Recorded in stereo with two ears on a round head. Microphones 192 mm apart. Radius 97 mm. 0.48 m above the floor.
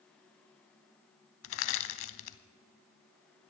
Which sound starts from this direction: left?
Crushing, at 1.4 s.